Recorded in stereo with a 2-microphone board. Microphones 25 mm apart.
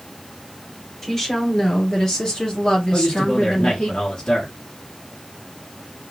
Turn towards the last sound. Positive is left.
turn(degrees=30)  # may be behind; listen again after turning